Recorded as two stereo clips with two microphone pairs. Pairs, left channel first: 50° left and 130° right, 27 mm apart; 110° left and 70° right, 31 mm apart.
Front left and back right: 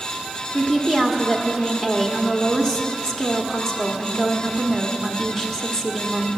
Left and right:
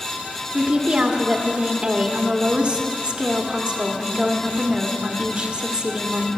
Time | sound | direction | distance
0.5 | a woman speaking | 15° right | 1.6 m